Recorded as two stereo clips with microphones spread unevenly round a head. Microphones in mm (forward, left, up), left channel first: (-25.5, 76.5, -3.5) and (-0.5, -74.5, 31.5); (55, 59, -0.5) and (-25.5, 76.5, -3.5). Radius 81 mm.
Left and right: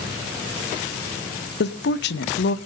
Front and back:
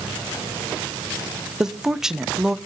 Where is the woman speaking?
85° left, 0.7 m.